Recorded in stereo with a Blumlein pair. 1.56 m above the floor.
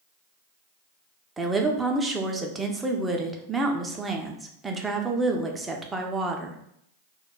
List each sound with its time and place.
1.4 s a woman speaking: 10° right, 0.5 m